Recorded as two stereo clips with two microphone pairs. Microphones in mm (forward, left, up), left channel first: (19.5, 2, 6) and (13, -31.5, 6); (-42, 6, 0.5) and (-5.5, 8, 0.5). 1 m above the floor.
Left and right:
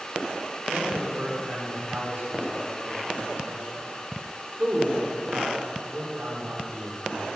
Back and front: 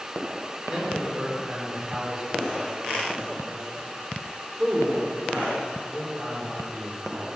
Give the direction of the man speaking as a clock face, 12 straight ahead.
2 o'clock.